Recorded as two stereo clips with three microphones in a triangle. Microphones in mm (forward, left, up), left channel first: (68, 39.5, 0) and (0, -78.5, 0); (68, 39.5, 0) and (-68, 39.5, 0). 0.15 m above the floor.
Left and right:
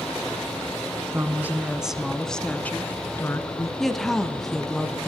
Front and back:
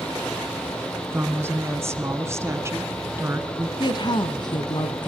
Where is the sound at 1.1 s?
145° right, 1.4 m; by 3.7 s 115° left, 2.0 m.